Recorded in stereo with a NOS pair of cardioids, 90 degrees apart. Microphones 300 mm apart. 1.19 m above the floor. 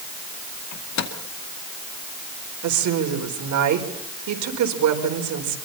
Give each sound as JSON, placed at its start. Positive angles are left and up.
{"t": 0.7, "sound": "a microwave", "azimuth_deg": 60, "distance_m": 2.5}
{"t": 2.6, "sound": "a woman speaking", "azimuth_deg": -70, "distance_m": 4.5}